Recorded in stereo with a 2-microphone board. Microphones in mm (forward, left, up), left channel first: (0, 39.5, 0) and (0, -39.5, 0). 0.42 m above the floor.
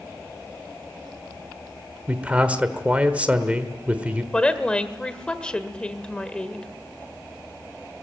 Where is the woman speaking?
10° left (ahead or behind), 1.4 m.